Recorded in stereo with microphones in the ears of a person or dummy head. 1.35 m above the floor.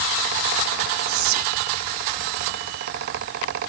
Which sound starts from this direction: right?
Whispering, at 1.1 s.